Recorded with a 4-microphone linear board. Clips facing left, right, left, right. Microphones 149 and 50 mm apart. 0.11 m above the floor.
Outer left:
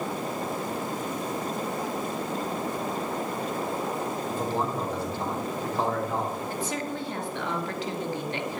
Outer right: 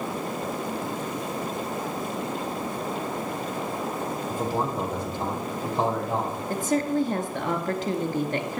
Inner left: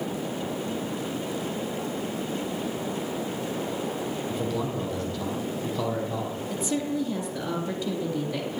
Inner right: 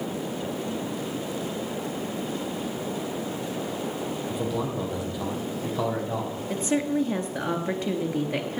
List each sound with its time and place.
4.3 s a man speaking: 10° right (ahead or behind), 3 m; by 6.4 s 25° right (ahead or behind), 4 m
6.5 s a woman speaking: 45° right (ahead or behind), 1.6 m